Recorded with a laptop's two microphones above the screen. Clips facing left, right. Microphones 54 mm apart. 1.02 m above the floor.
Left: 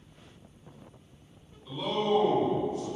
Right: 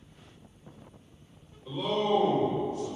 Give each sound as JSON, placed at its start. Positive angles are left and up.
{"t": 1.6, "sound": "a man speaking", "side_deg": -40, "distance_m": 1.8}